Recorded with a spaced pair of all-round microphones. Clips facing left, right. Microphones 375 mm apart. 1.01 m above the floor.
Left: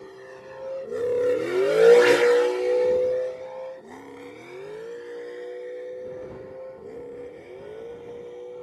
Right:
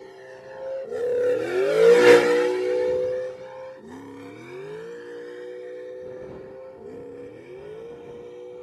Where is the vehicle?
15° left (ahead or behind); by 8.7 s 20° right (ahead or behind).